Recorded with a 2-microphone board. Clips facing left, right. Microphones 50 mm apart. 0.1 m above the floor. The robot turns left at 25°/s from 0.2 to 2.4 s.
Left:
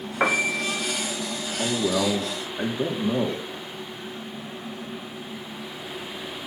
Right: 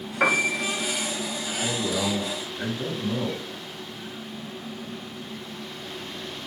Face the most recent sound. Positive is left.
turn(degrees=65)  # may be behind; listen again after turning